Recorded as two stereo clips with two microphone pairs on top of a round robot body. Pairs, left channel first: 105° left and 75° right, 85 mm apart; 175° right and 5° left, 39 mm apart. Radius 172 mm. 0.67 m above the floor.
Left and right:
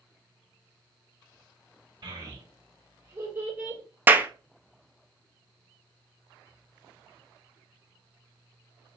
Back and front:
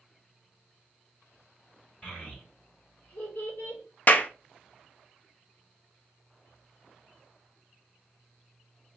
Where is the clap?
140° right, 0.8 m.